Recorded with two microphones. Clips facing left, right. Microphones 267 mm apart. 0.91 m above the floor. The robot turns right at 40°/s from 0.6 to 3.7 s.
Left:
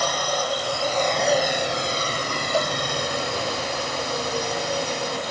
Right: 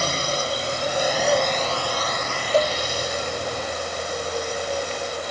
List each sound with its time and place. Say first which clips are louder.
0.0 s a drone: even; 30° right; by 5.3 s 95° left
2.5 s a cowbell: right 5 dB; 55° right (ahead or behind); by 2.8 s 65° right (ahead or behind)